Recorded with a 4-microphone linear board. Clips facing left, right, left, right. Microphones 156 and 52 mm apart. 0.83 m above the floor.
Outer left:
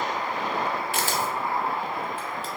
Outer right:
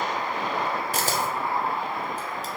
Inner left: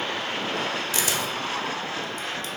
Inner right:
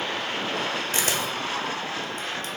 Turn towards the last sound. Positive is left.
turn(degrees=-40)  # may be behind; listen again after turning